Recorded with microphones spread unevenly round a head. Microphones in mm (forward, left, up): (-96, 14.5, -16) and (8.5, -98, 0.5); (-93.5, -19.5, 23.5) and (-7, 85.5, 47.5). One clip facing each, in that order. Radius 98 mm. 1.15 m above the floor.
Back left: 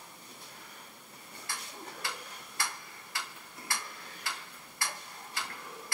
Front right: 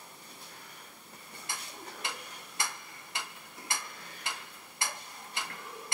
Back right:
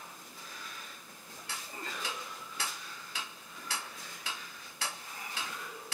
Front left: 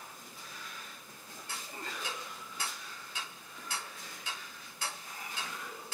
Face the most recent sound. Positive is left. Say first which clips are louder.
# even, back right 1 dB
turn(degrees=-120)